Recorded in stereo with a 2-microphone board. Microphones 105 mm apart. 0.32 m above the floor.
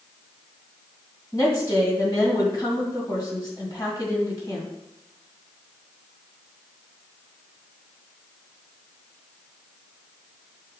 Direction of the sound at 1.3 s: 40° left (ahead or behind).